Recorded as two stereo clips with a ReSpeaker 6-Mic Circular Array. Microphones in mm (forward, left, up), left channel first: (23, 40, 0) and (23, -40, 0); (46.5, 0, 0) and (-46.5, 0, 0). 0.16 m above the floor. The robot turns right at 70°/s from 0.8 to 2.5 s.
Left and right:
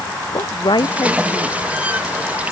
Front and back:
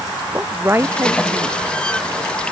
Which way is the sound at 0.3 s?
115° left.